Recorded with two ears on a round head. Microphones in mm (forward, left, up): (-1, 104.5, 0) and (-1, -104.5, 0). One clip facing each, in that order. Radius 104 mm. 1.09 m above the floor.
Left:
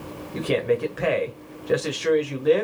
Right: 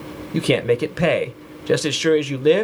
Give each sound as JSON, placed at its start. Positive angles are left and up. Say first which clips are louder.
{"t": 0.3, "sound": "a man speaking", "louder": "right 4 dB", "side_deg": -60, "distance_m": 0.7}